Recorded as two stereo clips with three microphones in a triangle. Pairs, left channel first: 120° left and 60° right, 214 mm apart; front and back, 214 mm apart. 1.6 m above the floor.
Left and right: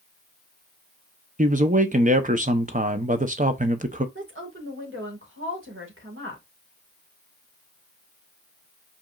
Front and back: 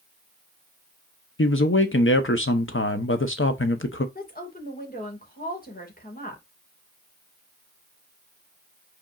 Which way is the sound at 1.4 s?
10° right.